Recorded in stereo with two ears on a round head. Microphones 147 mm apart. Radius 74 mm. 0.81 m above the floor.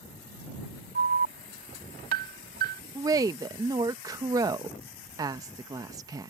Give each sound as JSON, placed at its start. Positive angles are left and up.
{"t": 0.9, "sound": "an alarm", "side_deg": -60}
{"t": 3.0, "sound": "a woman speaking", "side_deg": -25}